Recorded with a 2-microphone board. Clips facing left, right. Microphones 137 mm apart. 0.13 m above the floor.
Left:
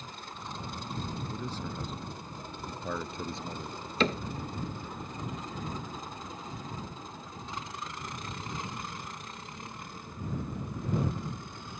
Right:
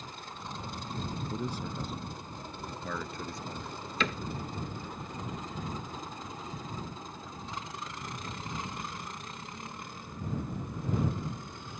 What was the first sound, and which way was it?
A man speaking, 20° right (ahead or behind).